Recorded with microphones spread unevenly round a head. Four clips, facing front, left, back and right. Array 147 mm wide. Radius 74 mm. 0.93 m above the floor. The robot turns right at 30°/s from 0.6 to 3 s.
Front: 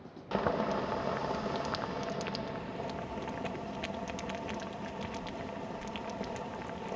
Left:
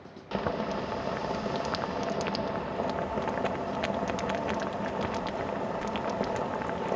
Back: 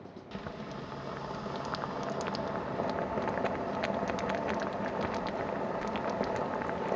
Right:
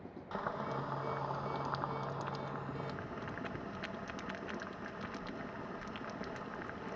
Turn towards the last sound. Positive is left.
turn(degrees=115)